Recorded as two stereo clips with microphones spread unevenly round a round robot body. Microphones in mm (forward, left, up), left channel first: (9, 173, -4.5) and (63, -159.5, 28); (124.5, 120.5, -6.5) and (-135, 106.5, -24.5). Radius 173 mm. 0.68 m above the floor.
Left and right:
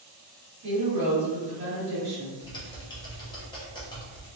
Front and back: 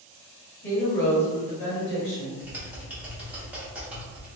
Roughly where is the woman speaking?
Ahead right.